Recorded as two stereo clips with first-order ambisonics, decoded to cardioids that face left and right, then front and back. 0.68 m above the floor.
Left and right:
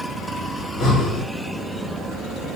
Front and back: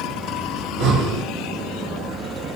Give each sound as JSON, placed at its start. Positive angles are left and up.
{"t": 0.6, "sound": "breathing", "azimuth_deg": 145, "distance_m": 1.6}